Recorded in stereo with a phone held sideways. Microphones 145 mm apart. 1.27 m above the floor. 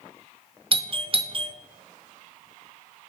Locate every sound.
0.7 s a doorbell: 40° right (ahead or behind), 0.5 m